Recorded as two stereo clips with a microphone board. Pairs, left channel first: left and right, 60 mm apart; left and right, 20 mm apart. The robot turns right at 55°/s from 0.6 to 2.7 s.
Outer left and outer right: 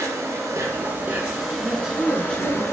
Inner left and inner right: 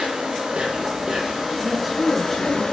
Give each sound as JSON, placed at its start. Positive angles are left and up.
{"t": 0.0, "sound": "an insect", "azimuth_deg": -55, "distance_m": 5.0}
{"t": 1.6, "sound": "a woman speaking", "azimuth_deg": -20, "distance_m": 5.0}